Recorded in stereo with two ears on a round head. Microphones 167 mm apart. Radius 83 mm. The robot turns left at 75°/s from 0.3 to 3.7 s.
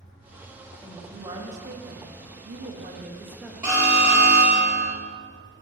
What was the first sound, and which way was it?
A woman speaking, 15° left.